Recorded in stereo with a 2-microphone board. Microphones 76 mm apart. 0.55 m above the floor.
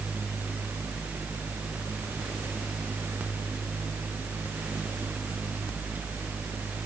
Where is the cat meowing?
I don't hear a cat meowing.